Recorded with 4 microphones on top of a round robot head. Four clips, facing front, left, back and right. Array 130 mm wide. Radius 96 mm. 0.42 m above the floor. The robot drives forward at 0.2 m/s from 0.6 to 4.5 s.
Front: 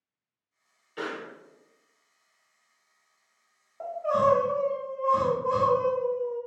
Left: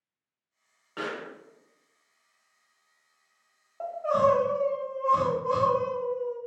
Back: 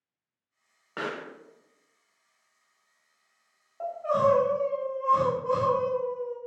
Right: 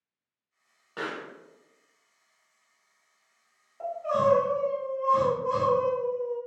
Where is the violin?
No violin in this recording.